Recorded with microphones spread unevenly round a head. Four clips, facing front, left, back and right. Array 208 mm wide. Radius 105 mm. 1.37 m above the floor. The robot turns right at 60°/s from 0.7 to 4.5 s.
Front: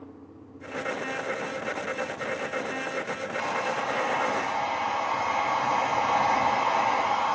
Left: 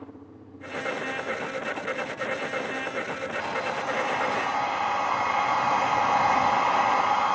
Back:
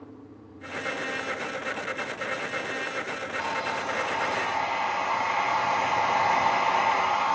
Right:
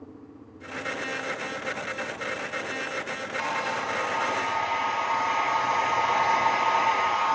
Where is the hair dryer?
10° right, 1.0 m; by 7.3 s 60° left, 1.0 m.